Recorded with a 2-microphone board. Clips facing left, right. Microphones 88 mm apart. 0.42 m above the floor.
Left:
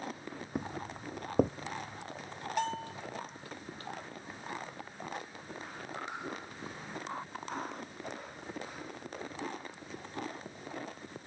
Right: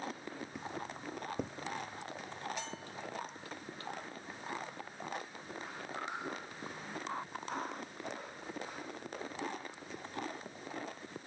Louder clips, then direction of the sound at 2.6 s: Left 10 dB; 55° left (ahead or behind).